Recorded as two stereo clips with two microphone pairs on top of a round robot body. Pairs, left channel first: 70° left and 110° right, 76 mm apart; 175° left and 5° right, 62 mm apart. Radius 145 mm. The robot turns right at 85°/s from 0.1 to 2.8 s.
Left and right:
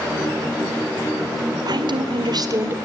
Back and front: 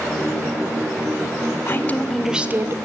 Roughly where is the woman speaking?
Behind right.